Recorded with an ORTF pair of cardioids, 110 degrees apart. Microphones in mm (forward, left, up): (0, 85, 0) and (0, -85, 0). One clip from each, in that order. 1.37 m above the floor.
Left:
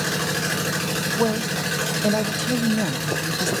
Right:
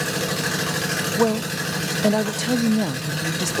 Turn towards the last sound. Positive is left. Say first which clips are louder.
# right 2 dB
turn(degrees=-20)